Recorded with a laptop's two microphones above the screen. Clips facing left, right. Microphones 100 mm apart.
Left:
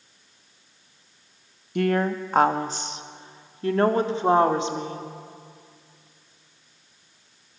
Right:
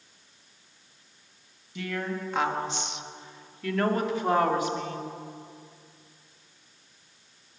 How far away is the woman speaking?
About 1.2 m.